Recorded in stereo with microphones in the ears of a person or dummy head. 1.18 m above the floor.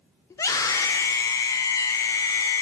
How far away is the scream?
About 0.6 m.